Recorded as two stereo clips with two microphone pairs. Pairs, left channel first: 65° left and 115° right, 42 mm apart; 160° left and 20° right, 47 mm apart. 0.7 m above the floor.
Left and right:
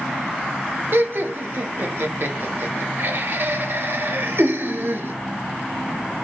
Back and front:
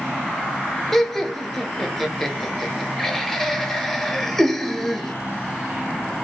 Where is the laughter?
115° right, 0.7 m.